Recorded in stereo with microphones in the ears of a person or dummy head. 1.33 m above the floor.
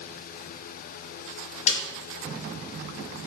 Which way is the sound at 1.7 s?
45° left (ahead or behind).